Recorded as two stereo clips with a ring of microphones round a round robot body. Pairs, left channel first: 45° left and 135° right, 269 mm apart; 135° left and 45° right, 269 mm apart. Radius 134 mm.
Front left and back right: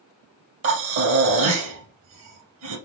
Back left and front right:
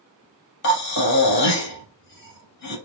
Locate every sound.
0.6 s breathing: 175° right, 2.5 m